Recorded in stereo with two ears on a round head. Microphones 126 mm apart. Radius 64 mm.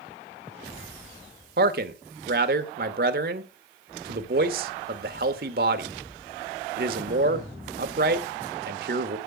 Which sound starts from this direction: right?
A man speaking, at 1.6 s.